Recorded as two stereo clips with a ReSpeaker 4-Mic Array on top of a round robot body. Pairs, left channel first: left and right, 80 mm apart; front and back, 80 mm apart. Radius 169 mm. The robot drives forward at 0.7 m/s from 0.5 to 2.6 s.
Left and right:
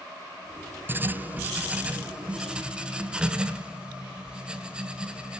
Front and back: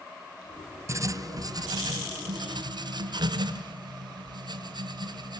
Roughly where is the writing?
Behind right.